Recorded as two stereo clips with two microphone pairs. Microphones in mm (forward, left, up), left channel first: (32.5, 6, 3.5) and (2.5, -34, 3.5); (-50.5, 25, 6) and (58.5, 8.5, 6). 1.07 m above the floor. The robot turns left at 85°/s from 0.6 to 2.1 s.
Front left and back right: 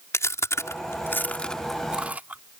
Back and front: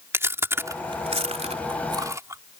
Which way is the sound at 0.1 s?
60° left.